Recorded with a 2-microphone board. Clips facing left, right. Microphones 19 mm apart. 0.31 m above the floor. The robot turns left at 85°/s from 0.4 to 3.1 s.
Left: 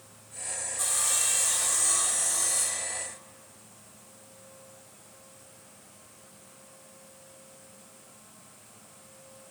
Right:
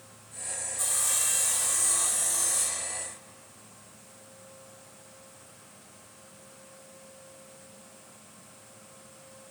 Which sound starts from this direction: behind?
Sawing, at 0.8 s.